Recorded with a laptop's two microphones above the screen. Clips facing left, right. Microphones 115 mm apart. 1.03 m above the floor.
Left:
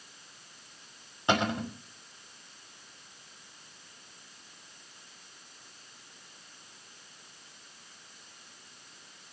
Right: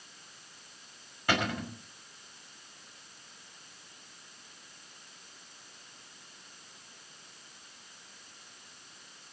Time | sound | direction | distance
1.3 | a cupboard door | 25° left (ahead or behind) | 5.5 m